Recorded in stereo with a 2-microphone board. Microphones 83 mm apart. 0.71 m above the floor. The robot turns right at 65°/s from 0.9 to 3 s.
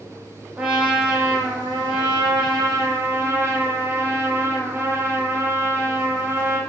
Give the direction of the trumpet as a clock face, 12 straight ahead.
6 o'clock.